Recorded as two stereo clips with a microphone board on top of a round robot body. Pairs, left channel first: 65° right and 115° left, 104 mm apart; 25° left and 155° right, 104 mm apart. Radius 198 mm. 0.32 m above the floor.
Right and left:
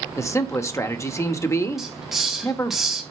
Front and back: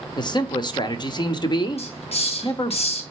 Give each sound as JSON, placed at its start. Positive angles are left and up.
{"t": 0.2, "sound": "a man speaking", "azimuth_deg": -10, "distance_m": 1.3}
{"t": 1.8, "sound": "a hiss", "azimuth_deg": 25, "distance_m": 2.5}